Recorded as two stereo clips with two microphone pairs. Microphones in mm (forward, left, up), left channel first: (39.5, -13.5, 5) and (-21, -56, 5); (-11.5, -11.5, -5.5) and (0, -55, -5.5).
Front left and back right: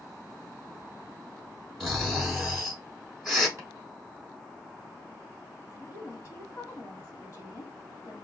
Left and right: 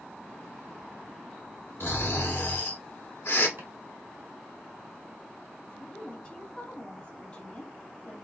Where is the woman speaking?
65° left, 1.4 m.